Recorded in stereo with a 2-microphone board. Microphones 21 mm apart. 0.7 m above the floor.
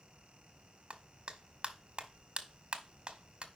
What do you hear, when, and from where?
0.9 s a clap: 50° right (ahead or behind), 1.0 m